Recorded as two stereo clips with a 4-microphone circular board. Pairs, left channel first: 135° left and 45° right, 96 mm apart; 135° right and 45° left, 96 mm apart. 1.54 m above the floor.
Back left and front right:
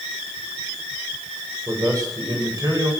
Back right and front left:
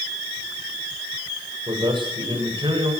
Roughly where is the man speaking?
Ahead.